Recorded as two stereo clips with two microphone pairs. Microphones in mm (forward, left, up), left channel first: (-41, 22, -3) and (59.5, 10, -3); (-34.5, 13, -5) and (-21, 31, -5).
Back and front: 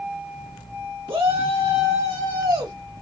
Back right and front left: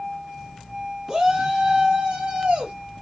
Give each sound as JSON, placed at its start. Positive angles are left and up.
{"t": 1.1, "sound": "a shout", "azimuth_deg": -25, "distance_m": 1.3}